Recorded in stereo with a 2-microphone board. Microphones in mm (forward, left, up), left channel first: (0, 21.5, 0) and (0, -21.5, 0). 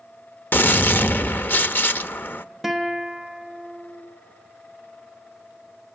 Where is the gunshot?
55° left (ahead or behind), 0.6 m.